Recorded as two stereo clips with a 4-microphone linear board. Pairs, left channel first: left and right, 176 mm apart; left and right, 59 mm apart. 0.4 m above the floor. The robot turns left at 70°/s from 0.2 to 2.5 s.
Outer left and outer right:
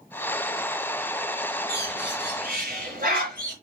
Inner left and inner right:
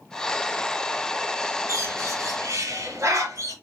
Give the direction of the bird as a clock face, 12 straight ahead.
2 o'clock.